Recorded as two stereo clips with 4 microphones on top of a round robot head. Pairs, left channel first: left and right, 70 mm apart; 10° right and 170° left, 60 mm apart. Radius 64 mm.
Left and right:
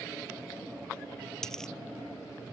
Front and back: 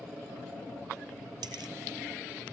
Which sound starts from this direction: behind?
A dropped coin, at 1.4 s.